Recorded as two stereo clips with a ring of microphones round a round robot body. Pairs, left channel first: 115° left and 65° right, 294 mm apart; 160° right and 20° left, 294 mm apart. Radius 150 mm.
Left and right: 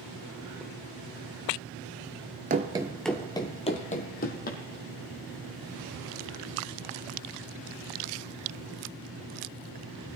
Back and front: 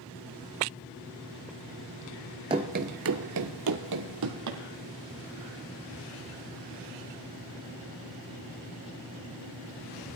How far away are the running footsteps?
About 0.6 m.